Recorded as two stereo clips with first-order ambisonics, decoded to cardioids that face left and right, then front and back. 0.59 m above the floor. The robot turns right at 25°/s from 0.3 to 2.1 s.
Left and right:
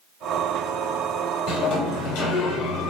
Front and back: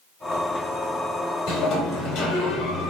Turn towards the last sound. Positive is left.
turn(degrees=60)